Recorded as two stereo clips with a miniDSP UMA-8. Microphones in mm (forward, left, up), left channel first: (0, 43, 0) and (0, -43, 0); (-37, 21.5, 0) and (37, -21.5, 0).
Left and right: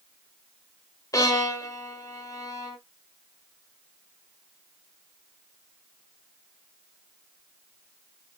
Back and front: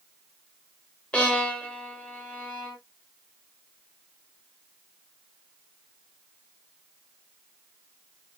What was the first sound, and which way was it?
A violin, 80° left.